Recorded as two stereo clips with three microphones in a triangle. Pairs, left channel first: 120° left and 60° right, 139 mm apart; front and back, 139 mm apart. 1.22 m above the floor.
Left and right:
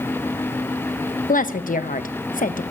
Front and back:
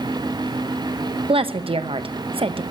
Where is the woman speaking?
130° left, 0.8 m.